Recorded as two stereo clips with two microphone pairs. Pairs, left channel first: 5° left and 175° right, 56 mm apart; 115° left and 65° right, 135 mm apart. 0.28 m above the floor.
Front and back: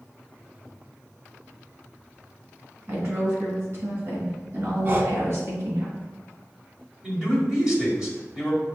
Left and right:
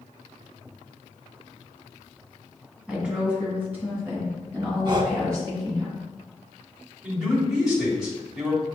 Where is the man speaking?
140° right, 1.5 m.